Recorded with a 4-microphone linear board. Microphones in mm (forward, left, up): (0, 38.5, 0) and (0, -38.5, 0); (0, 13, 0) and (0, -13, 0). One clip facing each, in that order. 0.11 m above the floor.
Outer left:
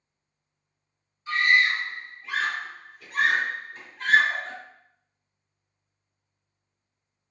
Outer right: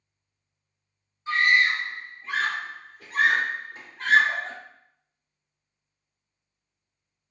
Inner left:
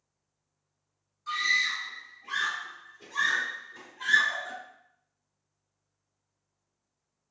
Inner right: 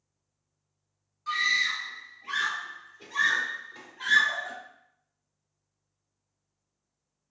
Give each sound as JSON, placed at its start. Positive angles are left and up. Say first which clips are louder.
{"t": 1.3, "sound": "a scream", "louder": "even, inner right 1 dB", "side_deg": -30, "distance_m": 1.6}